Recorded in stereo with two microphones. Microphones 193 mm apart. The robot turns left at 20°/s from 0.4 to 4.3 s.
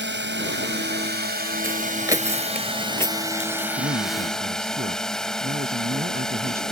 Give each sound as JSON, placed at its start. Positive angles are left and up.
{"t": 0.0, "sound": "a drone", "azimuth_deg": -105}
{"t": 1.6, "sound": "footsteps", "side_deg": -15}
{"t": 3.8, "sound": "a man speaking", "side_deg": -65}